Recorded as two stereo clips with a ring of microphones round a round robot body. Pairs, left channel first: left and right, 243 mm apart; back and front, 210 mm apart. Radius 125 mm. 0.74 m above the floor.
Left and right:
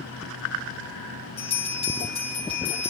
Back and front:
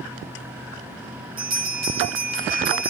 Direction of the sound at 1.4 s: 20° left.